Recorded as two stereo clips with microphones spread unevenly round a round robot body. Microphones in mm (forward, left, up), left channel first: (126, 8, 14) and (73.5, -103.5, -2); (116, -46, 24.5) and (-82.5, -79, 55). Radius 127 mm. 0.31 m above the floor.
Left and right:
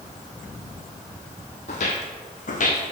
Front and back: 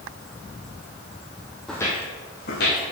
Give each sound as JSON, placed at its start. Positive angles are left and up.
{"t": 1.7, "sound": "footsteps", "azimuth_deg": 105, "distance_m": 0.6}